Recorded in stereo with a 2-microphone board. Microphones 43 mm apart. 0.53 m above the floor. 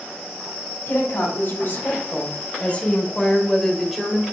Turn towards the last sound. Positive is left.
turn(degrees=-10)  # may be behind; listen again after turning